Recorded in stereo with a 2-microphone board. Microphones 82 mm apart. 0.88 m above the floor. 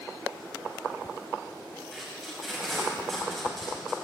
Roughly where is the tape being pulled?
Centre.